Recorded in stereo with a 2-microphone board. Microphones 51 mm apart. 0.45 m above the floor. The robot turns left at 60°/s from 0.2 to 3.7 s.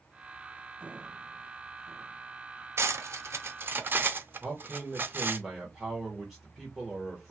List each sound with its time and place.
2.8 s cutlery clinking: 55° right (ahead or behind), 0.5 m; by 5.4 s 40° right (ahead or behind), 0.5 m
4.4 s a man speaking: 5° right (ahead or behind), 1.0 m